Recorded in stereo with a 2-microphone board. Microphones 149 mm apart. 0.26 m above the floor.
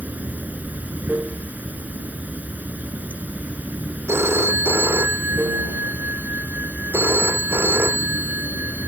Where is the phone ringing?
15° right (ahead or behind).